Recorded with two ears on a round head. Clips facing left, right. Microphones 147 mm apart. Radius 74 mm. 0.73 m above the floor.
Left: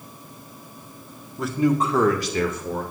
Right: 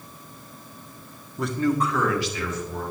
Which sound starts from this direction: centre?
A man speaking, at 1.4 s.